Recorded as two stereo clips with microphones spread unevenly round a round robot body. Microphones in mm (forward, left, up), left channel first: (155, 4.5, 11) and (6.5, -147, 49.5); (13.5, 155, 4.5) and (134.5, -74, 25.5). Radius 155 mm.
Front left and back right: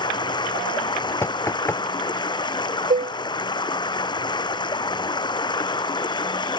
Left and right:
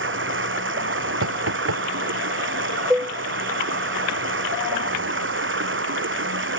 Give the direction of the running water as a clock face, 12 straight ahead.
1 o'clock.